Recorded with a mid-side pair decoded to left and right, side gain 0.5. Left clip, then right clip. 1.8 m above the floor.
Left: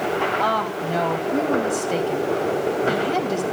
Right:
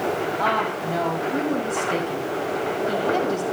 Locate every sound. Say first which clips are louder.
0.4 s a woman speaking: left 1 dB; 20° left, 5 m